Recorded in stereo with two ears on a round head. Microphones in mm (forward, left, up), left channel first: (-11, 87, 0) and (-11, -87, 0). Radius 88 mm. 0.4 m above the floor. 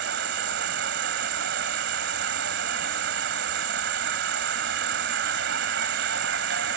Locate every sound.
0.0 s an insect: 65° right (ahead or behind)